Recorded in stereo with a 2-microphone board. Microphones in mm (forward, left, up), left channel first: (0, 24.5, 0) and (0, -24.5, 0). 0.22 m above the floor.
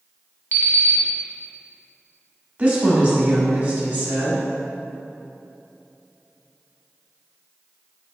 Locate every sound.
0.5 s an alarm clock: 45° left (ahead or behind), 0.8 m
2.6 s a woman speaking: 25° right (ahead or behind), 1.1 m